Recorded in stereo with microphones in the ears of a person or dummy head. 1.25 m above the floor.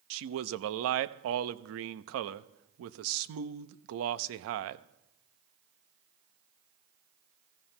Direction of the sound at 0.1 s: 70° right (ahead or behind).